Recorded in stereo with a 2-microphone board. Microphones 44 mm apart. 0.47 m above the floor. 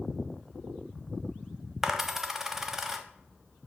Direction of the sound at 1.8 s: 5° right (ahead or behind).